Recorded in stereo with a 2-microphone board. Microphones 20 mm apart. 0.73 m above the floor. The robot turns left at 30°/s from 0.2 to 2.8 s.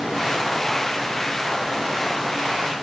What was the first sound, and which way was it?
Only background noise.